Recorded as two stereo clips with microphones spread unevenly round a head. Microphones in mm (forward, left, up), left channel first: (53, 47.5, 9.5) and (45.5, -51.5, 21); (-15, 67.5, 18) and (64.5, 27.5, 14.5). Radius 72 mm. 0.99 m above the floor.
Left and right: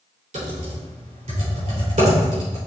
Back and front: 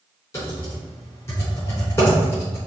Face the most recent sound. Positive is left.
turn(degrees=-140)